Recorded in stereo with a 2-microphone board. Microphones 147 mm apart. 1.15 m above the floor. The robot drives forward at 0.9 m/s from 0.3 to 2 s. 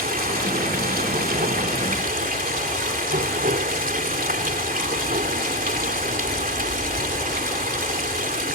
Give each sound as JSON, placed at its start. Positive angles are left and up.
{"t": 0.0, "sound": "running water", "side_deg": -80}